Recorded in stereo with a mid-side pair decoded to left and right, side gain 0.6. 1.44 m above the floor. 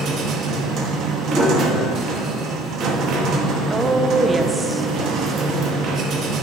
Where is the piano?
10° right, 2.5 m.